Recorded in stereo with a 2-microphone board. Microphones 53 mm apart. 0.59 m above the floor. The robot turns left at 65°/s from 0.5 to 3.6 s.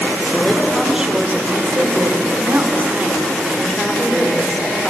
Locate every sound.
0.3 s a woman speaking: 15° left, 1.5 m; by 4.9 s 175° left, 1.5 m